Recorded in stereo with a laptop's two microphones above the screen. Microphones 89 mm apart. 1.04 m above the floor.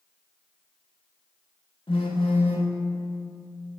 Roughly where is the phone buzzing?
Left.